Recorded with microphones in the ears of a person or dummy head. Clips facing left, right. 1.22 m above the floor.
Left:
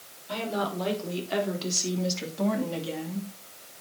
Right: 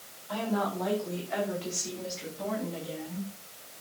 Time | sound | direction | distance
0.3 | a woman speaking | 35° left (ahead or behind) | 5 m